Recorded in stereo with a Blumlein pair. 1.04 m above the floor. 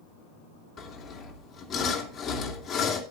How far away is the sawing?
About 2.5 m.